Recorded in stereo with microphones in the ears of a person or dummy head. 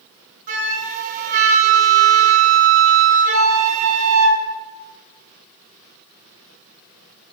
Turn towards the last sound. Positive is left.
turn(degrees=-40)  # may be behind; listen again after turning